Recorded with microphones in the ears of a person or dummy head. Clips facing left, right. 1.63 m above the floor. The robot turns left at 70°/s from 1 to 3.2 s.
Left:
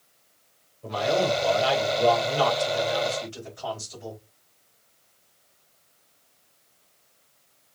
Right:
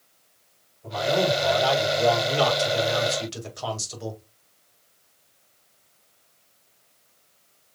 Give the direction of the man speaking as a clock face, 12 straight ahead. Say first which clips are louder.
Right 1 dB; 10 o'clock.